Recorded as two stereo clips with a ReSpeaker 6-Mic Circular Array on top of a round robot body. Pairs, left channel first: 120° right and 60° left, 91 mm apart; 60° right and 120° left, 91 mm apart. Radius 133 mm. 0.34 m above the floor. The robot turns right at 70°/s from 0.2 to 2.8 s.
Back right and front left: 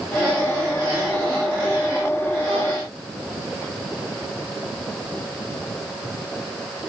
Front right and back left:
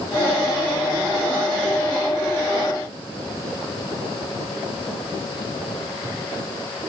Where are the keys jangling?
No keys jangling in this recording.